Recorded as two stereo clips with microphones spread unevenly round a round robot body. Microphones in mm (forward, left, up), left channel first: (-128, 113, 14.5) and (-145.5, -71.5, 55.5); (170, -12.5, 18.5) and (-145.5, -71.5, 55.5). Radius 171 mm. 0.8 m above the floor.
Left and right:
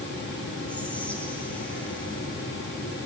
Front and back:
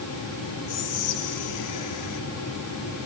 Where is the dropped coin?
No dropped coin in this recording.